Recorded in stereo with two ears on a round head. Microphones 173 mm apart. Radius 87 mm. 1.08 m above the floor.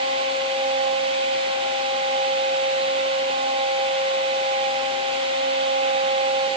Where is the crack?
I don't hear a crack.